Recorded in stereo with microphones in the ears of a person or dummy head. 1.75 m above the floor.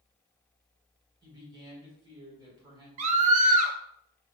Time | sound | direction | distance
1.2 | a woman speaking | 20° right (ahead or behind) | 1.7 m
3.0 | a scream | 40° right (ahead or behind) | 1.0 m